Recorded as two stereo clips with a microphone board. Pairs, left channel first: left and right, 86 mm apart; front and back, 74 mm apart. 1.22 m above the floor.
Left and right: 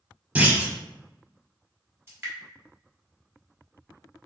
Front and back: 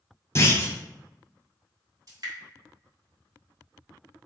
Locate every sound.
0.3 s a clunk: 25° right, 0.9 m
2.1 s dripping: 150° right, 1.7 m